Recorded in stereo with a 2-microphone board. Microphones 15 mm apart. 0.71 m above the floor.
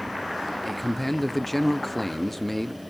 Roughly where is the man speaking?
Centre.